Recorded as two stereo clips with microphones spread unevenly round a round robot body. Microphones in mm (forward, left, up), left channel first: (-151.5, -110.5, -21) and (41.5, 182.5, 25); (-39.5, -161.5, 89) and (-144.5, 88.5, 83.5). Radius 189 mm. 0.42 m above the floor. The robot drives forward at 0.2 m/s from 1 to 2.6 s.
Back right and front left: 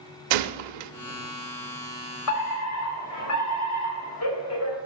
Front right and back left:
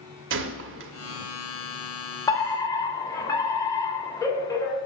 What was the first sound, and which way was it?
A gunshot, 65° left.